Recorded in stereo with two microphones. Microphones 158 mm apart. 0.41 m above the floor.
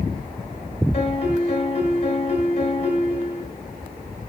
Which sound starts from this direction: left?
A piano, at 0.9 s.